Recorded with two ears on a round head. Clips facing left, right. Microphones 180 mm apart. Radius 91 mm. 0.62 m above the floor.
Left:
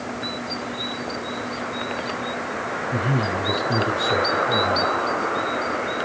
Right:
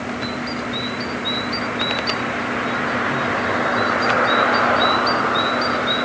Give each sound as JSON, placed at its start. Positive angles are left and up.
{"t": 2.9, "sound": "a man speaking", "side_deg": 85, "distance_m": 10.0}